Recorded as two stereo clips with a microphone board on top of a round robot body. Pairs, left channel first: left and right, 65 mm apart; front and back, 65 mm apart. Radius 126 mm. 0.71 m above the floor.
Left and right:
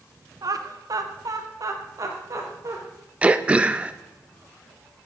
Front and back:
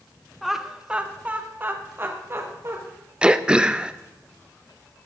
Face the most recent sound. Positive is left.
turn(degrees=-125)